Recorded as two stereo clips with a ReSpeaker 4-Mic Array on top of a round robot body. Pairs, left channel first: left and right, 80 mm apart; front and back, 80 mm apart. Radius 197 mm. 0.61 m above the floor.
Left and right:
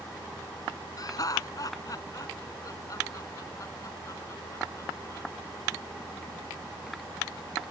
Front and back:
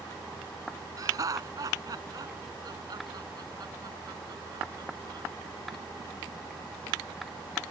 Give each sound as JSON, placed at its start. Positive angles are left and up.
{"t": 1.0, "sound": "laughter", "azimuth_deg": 130}